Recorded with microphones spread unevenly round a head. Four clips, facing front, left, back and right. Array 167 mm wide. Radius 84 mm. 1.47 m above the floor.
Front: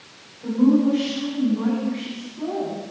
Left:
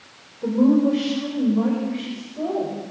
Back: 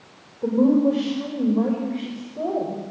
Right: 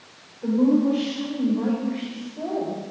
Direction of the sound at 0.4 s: 160° left.